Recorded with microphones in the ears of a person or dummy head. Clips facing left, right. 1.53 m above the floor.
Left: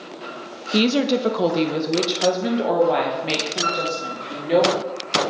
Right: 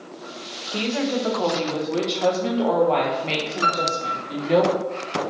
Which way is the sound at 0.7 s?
55° left (ahead or behind).